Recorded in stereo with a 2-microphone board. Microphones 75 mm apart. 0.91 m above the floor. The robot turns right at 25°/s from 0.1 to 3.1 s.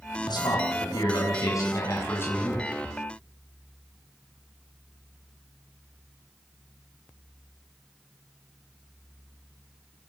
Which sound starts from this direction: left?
A man speaking, at 0.3 s.